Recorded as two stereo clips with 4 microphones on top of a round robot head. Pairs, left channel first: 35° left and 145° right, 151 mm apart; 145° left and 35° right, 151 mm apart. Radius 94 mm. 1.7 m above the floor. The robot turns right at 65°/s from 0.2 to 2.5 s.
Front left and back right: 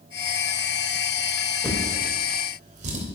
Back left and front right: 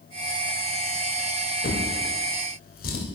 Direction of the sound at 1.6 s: 115° left.